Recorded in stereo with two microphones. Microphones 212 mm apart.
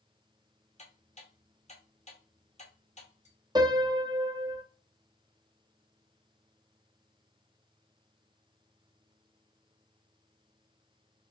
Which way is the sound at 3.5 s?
20° right (ahead or behind).